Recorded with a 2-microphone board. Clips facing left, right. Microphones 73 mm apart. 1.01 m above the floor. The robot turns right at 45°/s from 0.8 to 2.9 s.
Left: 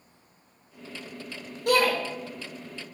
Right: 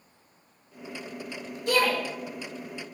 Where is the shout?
55° left (ahead or behind), 1.9 m; by 1.9 s 40° left (ahead or behind), 1.9 m.